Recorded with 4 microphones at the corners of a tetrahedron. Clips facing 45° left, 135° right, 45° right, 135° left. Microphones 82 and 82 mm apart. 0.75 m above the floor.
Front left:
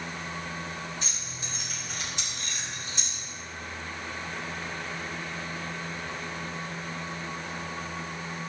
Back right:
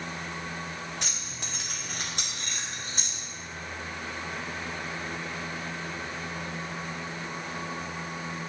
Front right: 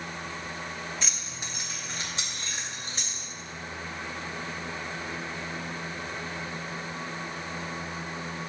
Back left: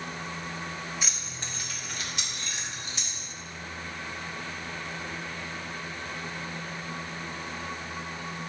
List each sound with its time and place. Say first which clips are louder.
1.0 s keys jangling: back right 1 dB, even; 140° right, 1.0 m; by 3.2 s 90° right, 3 m